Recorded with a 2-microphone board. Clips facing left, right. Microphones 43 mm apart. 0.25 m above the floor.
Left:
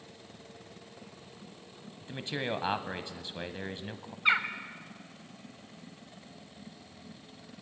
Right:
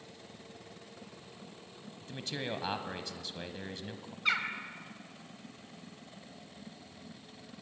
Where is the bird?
25° left (ahead or behind), 1.5 m.